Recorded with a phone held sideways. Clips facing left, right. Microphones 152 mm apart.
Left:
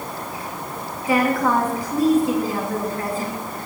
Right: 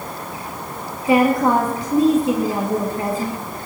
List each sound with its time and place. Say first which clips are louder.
1.1 s a woman speaking: right 4 dB; 25° right (ahead or behind), 2.5 m